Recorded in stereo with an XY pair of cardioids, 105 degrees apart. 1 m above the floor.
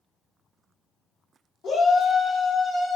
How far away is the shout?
About 0.9 m.